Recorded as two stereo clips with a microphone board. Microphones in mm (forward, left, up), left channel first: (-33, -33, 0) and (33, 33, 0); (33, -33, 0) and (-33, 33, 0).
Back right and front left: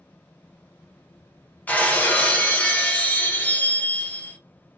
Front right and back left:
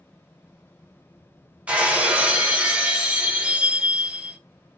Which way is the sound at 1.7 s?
170° right.